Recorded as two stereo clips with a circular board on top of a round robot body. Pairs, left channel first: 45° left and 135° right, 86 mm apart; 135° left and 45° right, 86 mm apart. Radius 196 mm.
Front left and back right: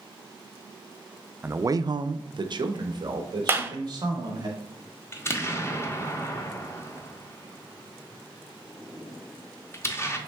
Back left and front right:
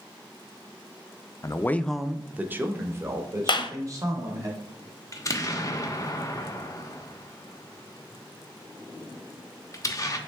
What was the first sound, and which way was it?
A man speaking, 165° left.